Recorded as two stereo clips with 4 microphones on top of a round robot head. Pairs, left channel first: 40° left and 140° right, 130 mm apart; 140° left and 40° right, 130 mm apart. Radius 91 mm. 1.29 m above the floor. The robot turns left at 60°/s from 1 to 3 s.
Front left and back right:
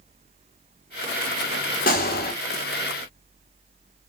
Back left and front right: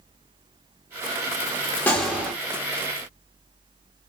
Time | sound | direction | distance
1.9 | a gunshot | 60° left | 1.2 m